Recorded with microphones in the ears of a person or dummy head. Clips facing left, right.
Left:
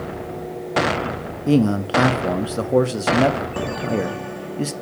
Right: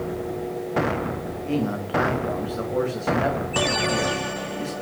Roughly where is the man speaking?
Left.